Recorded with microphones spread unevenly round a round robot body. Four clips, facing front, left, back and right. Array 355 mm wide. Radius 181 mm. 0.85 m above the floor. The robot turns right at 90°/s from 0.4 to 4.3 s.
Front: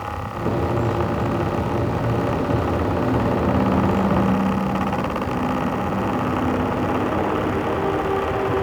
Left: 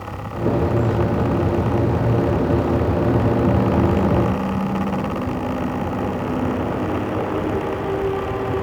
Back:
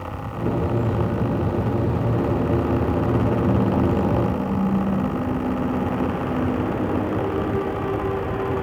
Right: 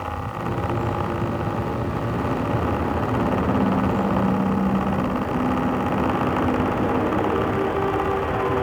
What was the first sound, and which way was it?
Only background noise.